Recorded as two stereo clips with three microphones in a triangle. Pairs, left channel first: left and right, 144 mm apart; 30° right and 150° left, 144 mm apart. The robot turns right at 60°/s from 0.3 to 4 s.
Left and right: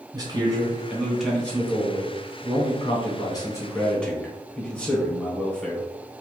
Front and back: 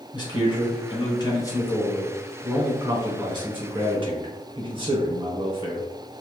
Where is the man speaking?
55° right, 1.0 m; by 5.9 s 165° left, 1.0 m.